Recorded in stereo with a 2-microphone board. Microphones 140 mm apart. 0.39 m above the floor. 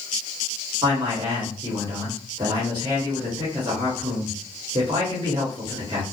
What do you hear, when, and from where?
0.8 s a man speaking: 30° right (ahead or behind), 1.5 m